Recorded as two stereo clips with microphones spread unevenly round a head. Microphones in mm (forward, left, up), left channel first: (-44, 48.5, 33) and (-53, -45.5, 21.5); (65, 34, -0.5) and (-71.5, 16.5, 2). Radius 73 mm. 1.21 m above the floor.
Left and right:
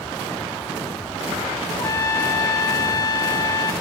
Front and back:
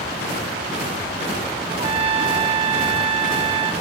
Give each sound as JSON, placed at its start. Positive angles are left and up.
{"t": 1.7, "sound": "a trumpet", "azimuth_deg": 135, "distance_m": 1.8}